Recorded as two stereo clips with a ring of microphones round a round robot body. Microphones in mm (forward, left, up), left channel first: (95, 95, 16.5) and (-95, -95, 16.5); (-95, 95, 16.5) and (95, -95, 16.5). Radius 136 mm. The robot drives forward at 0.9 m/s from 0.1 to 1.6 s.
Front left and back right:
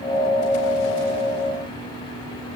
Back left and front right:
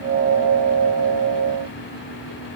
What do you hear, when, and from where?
Only background noise.